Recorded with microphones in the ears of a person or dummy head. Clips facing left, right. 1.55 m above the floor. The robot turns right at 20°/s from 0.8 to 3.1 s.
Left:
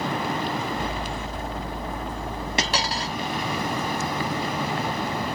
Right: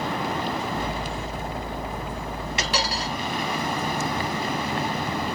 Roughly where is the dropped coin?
Left.